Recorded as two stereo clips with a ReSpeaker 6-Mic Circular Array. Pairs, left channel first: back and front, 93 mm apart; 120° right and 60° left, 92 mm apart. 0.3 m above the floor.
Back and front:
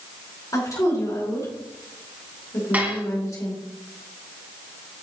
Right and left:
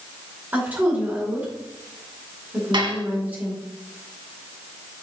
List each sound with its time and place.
0.5 s a woman speaking: 130° left, 4.5 m
2.7 s dishes clattering: 70° left, 1.9 m